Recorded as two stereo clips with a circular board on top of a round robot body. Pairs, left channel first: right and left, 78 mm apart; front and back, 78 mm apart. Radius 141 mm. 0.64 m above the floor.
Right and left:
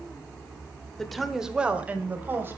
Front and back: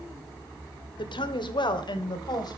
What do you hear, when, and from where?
1.0 s a woman speaking: 5° right, 2.5 m; by 2.6 s 30° left, 4 m